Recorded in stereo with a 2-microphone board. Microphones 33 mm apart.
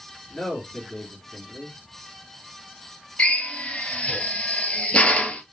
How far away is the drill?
About 1.0 m.